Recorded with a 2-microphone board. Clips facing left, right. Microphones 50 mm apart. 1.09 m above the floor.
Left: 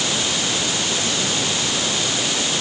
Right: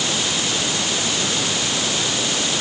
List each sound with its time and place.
Only background noise.